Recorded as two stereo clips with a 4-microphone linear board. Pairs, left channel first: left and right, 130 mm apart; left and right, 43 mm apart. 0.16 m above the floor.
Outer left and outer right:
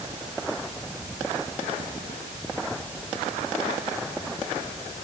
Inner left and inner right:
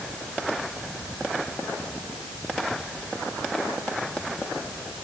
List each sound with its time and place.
Only background noise.